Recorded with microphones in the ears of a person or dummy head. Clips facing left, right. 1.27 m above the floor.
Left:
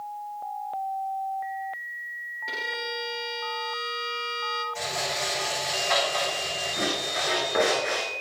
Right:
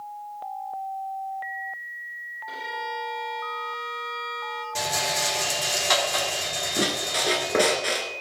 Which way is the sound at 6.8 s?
35° right (ahead or behind).